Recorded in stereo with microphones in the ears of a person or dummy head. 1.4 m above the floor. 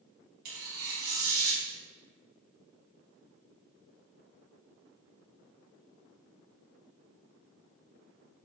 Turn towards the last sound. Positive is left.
turn(degrees=-45)  # may be behind; listen again after turning